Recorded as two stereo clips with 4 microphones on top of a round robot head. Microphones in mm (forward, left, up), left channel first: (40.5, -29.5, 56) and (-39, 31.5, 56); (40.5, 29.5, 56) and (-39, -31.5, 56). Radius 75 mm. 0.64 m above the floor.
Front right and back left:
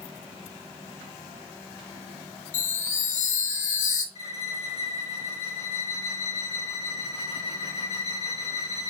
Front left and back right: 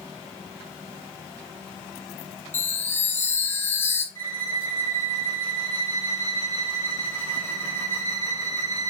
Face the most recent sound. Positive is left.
turn(degrees=-30)